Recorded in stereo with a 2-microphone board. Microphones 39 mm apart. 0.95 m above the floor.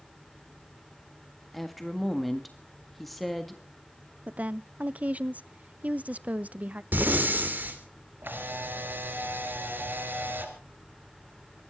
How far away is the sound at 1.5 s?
About 1.7 m.